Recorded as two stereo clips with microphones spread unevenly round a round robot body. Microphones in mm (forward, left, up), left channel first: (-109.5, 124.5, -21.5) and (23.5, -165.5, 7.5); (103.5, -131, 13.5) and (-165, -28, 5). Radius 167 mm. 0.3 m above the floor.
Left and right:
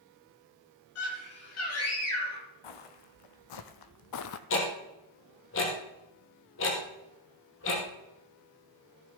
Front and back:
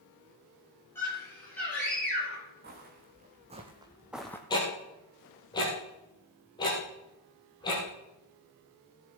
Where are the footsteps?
95° left, 1.5 m; by 4.4 s 60° left, 0.6 m.